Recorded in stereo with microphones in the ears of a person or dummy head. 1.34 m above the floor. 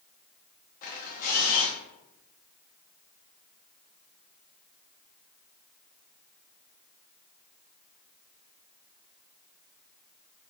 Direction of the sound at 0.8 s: 45° left (ahead or behind).